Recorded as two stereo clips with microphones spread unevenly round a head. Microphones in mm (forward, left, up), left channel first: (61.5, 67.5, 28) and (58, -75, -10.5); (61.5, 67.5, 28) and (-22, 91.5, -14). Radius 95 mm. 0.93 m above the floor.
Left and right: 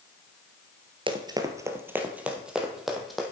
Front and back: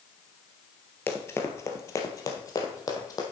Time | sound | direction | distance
1.1 | running footsteps | 30° right | 1.2 m